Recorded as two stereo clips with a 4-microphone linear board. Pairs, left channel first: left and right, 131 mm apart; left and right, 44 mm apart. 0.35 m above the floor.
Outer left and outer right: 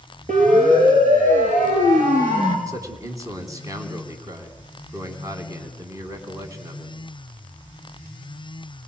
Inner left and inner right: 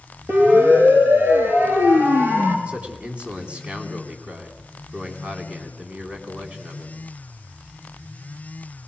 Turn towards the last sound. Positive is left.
turn(degrees=-25)  # may be behind; listen again after turning